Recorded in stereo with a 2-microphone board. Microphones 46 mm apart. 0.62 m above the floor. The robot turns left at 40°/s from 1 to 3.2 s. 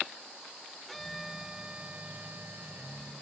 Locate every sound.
0.9 s a violin: 5° left; by 3.1 s 85° right